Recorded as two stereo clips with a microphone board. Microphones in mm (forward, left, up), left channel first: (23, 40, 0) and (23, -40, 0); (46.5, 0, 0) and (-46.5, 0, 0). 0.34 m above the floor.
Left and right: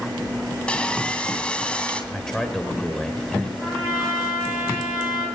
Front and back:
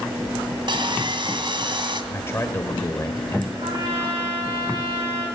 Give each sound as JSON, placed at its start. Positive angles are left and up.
{"t": 0.7, "sound": "sawing", "azimuth_deg": 165, "distance_m": 2.0}
{"t": 2.1, "sound": "a man speaking", "azimuth_deg": 15, "distance_m": 1.4}
{"t": 3.6, "sound": "a trumpet", "azimuth_deg": 170, "distance_m": 9.0}